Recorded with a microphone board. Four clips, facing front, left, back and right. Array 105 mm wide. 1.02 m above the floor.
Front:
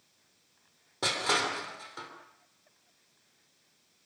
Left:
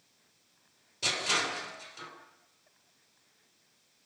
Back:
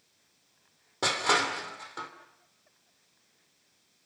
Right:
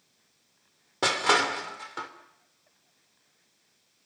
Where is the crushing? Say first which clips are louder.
Right 9 dB, back 3 dB; 105° right, 3 m.